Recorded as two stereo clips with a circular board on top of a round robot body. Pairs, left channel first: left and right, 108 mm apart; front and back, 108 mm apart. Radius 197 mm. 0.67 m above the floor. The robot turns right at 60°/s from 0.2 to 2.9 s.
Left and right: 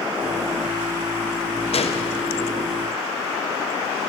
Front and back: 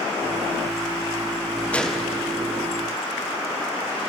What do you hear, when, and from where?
1.7 s a gunshot: 75° left, 0.9 m; by 2.1 s 100° left, 0.9 m